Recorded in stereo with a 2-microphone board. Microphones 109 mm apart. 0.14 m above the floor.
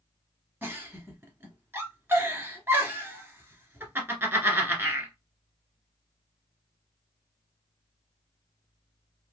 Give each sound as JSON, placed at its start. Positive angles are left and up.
{"t": 0.6, "sound": "a giggle", "side_deg": -20, "distance_m": 1.1}